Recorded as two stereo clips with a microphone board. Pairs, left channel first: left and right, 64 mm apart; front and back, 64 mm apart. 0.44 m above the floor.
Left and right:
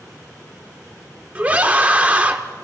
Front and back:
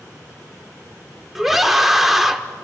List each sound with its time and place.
1.4 s a scream: 100° right, 0.7 m